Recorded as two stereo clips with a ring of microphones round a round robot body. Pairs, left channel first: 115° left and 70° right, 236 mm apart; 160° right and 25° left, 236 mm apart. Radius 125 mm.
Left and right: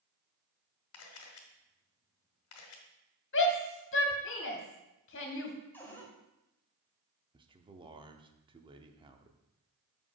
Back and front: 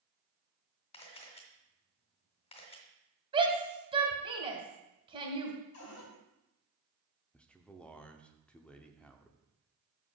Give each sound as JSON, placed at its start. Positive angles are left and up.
{"t": 0.9, "sound": "a camera shutter", "azimuth_deg": 135, "distance_m": 1.4}
{"t": 3.3, "sound": "a shout", "azimuth_deg": 90, "distance_m": 1.5}
{"t": 5.7, "sound": "a cupboard door", "azimuth_deg": -165, "distance_m": 1.7}
{"t": 7.3, "sound": "a man speaking", "azimuth_deg": -80, "distance_m": 0.7}